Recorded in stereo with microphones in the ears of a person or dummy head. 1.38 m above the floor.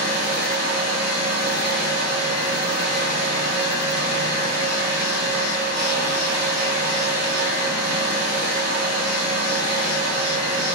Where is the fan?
55° right (ahead or behind), 0.9 m.